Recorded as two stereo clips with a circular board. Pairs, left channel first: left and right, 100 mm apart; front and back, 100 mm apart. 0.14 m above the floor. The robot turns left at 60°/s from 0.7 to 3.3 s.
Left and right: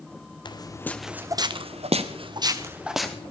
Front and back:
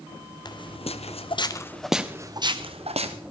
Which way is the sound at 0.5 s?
45° left.